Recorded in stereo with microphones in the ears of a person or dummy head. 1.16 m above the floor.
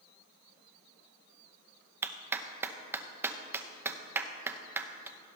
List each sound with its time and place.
2.0 s a clap: 15° right (ahead or behind), 0.7 m